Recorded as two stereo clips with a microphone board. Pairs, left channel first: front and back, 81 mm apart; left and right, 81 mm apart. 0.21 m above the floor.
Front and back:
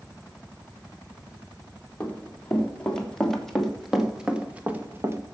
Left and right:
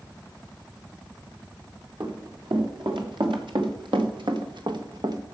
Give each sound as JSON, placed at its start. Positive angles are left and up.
{"t": 2.0, "sound": "running footsteps", "azimuth_deg": -75, "distance_m": 4.0}